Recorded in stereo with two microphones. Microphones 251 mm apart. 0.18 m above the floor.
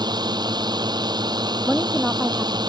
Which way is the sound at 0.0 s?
15° right (ahead or behind).